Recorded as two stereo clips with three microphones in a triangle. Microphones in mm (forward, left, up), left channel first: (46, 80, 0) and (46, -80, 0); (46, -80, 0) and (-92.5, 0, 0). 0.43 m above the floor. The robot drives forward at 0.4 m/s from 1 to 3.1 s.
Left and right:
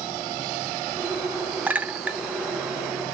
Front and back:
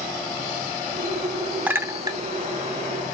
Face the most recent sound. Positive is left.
turn(degrees=-175)